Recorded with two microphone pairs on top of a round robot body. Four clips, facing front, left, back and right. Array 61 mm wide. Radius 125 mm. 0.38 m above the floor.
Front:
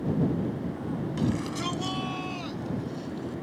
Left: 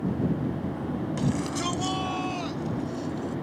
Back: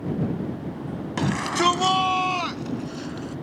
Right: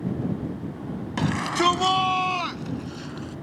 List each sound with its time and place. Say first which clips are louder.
1.2 s a shout: right 8 dB, back 9 dB; 140° right; by 3.3 s 145° right